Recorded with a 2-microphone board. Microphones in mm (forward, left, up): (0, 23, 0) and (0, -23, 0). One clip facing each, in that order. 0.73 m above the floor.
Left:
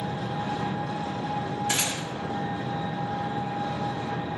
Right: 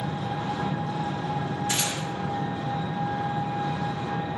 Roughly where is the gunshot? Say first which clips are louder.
Even; left.